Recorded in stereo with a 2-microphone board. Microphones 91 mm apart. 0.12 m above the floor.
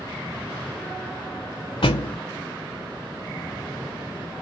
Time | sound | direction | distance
1.8 | a thud | 80° left | 0.5 m